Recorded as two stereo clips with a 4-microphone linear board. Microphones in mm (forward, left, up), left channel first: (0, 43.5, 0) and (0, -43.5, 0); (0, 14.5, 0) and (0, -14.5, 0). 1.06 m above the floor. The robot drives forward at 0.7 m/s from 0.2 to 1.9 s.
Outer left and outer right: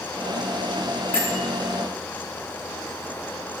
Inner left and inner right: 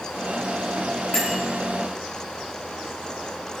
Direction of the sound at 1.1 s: 25° left (ahead or behind).